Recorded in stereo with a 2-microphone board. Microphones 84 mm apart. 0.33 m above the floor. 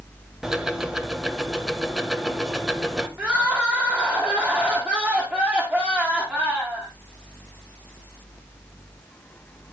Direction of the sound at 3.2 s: 20° right (ahead or behind).